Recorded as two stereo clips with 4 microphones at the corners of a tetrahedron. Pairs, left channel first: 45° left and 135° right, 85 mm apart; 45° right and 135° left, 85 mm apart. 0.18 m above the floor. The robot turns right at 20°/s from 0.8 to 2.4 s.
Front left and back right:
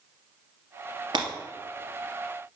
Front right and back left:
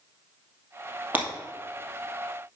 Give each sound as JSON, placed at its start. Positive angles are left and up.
{"t": 1.1, "sound": "breaking glass", "azimuth_deg": -155, "distance_m": 2.5}